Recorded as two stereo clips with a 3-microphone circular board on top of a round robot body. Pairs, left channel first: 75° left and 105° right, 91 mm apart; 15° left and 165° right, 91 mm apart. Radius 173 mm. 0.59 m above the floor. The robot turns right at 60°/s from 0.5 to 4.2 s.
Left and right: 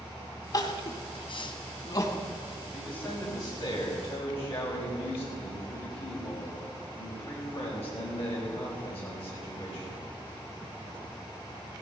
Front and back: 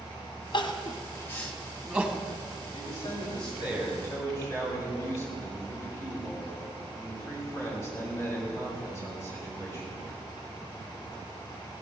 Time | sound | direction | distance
0.5 | crying | 40° left | 1.8 m
2.7 | a man speaking | 10° right | 6.5 m